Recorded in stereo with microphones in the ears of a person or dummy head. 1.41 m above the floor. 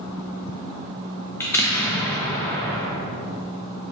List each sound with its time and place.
1.4 s an explosion: 15° left (ahead or behind), 0.8 m